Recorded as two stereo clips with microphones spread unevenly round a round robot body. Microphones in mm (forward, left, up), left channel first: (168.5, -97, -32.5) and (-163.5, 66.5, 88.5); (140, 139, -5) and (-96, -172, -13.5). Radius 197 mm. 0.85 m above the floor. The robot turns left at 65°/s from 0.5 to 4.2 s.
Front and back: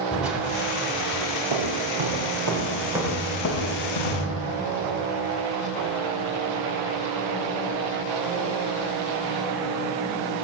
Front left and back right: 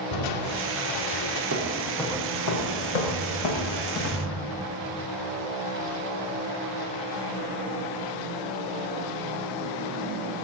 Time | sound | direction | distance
0.1 | crushing | 60° left | 2.5 m
1.5 | footsteps | 175° left | 5.5 m